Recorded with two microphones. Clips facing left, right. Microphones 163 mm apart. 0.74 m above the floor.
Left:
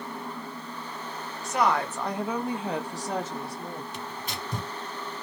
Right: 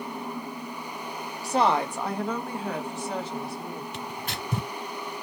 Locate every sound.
1.4 s a woman speaking: 35° right (ahead or behind), 0.8 m; by 3.8 s 55° left (ahead or behind), 1.2 m
3.9 s tearing paper: 55° right (ahead or behind), 1.5 m